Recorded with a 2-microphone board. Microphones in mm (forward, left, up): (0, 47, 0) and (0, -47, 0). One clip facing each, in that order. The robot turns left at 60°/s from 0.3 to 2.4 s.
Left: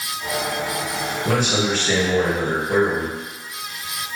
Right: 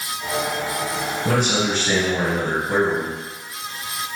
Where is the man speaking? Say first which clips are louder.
Even; 80° right, 1.8 m; by 3.2 s 150° right, 1.8 m.